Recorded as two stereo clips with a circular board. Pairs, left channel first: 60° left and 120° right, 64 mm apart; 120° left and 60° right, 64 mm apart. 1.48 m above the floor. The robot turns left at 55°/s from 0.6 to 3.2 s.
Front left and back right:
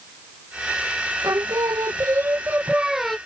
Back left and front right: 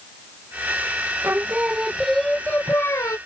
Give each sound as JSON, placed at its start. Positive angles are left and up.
{"t": 1.2, "sound": "singing", "azimuth_deg": -110}